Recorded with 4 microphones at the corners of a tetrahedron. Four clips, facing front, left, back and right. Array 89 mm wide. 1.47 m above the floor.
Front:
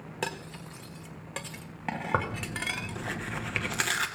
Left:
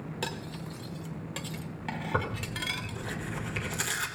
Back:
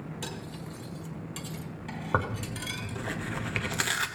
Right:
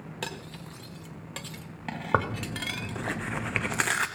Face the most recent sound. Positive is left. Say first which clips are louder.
# right 7 dB, back 2 dB
turn(degrees=-95)